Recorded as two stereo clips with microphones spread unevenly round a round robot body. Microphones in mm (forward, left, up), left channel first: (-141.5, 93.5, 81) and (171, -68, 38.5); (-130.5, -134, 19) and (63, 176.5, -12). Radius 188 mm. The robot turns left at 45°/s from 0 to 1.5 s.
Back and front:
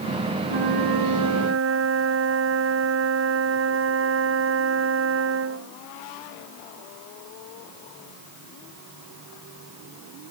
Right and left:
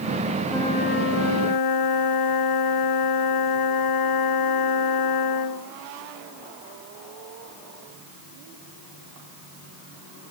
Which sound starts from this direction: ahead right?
A flute, at 0.5 s.